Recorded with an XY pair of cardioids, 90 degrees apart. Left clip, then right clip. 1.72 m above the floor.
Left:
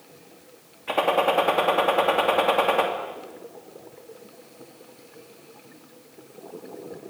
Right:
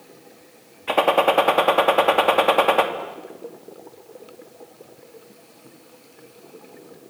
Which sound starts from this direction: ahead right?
A gunshot, at 0.9 s.